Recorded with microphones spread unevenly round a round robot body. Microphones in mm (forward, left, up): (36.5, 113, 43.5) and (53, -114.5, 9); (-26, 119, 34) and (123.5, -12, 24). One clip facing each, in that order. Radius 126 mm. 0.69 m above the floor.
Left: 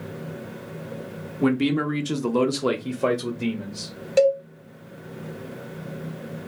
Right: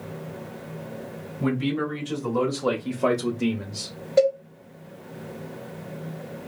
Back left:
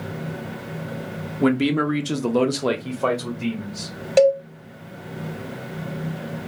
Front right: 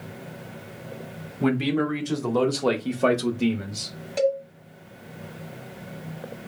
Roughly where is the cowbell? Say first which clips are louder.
Left 1 dB, back left 8 dB; behind left.